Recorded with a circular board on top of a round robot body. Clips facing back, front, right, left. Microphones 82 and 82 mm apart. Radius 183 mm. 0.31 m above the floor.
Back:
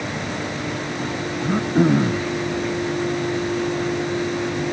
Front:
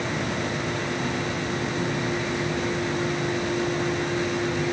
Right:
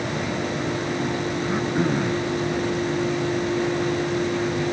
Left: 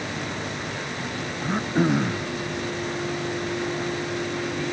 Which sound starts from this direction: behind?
Throat clearing, at 1.4 s.